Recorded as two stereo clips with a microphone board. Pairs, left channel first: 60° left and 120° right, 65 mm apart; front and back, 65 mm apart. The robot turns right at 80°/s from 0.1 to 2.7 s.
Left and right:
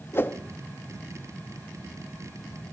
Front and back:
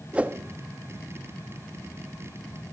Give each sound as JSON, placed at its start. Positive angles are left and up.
{"t": 0.1, "sound": "a whoosh", "azimuth_deg": 105, "distance_m": 1.0}